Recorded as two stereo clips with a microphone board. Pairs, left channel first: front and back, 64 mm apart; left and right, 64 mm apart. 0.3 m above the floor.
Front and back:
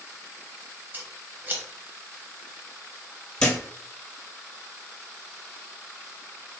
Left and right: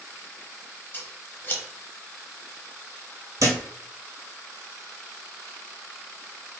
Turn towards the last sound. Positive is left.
turn(degrees=-80)